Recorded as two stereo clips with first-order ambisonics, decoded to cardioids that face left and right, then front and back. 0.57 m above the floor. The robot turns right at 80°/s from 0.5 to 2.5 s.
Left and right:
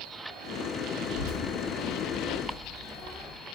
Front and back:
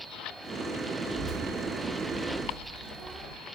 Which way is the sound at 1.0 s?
65° left.